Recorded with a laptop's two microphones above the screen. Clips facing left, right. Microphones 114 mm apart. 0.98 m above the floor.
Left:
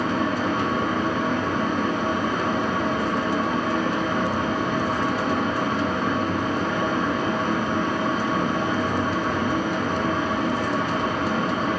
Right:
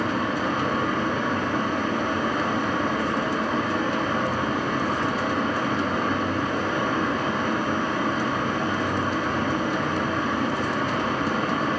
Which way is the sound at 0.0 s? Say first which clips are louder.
Left 2 dB; 20° left (ahead or behind).